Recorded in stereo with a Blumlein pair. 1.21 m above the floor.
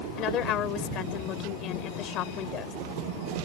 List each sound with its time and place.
0.2 s a woman speaking: 35° left